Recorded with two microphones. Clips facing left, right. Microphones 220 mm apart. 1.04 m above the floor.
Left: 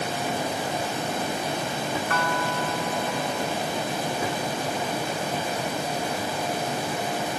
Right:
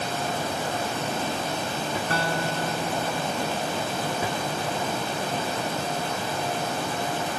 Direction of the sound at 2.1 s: 30° right (ahead or behind).